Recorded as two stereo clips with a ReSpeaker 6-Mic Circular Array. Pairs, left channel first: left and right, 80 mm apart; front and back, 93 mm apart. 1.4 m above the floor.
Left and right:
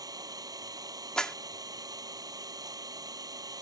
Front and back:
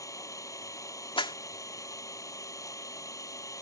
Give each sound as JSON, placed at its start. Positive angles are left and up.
{"t": 0.0, "sound": "an engine running", "azimuth_deg": -50}
{"t": 1.2, "sound": "a clap", "azimuth_deg": 10}